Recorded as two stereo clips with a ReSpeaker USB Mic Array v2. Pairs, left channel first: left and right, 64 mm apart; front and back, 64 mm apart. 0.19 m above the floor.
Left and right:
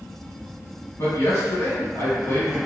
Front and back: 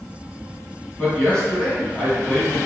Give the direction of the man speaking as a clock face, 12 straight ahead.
9 o'clock.